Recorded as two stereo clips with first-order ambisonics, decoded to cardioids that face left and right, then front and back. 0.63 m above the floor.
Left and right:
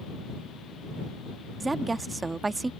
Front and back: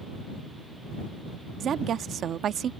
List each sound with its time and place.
1.6 s a woman speaking: 155° right